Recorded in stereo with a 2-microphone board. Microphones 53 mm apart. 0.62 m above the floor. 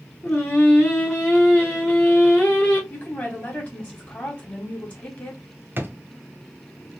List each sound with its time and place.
0.2 s singing: 30° left (ahead or behind), 1.8 m
2.9 s a woman speaking: 35° left (ahead or behind), 2.5 m
5.8 s a drawer: 40° right (ahead or behind), 0.8 m